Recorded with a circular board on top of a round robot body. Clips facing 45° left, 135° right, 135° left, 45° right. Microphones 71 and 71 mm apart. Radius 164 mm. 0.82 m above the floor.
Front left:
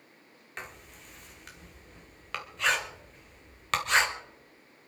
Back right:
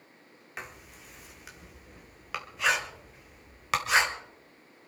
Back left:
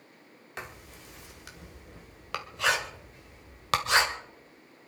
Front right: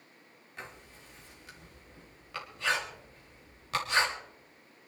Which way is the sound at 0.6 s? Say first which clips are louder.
Back right 1 dB, back left 4 dB; 140° left.